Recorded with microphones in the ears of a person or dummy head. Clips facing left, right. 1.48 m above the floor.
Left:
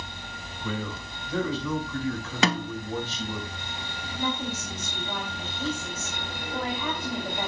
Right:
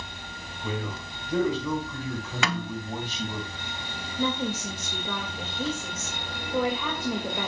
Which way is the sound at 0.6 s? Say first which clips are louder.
Even; 15° right (ahead or behind).